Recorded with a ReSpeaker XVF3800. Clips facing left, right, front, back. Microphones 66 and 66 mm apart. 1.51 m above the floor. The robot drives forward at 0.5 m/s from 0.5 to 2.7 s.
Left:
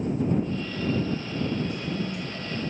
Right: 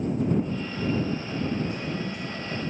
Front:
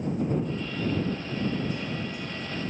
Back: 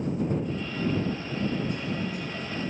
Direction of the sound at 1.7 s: 150° right.